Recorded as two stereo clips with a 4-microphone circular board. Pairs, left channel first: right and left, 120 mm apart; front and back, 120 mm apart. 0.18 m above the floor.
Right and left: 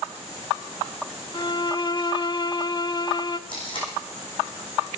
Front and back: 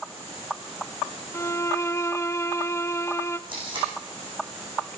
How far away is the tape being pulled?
About 8 m.